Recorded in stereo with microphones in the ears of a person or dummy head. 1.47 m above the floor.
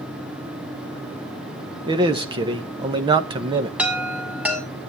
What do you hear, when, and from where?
1.9 s a man speaking: 25° right (ahead or behind), 1.2 m
3.8 s a chime: 5° right (ahead or behind), 2 m